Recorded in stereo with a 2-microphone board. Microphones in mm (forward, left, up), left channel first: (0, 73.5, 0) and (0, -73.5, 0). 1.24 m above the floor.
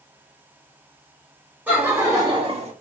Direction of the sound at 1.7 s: 10° right (ahead or behind).